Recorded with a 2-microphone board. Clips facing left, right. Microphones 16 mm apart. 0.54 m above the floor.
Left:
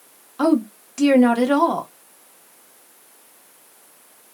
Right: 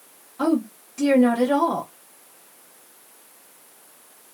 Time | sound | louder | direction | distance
0.4 | a woman speaking | left 4 dB | 40° left (ahead or behind) | 0.8 m